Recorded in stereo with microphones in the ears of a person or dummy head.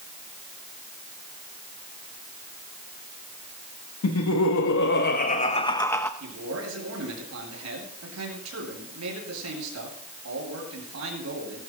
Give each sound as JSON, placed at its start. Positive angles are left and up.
{"t": 4.0, "sound": "laughter", "side_deg": 85, "distance_m": 1.2}
{"t": 6.2, "sound": "a man speaking", "side_deg": -85, "distance_m": 8.5}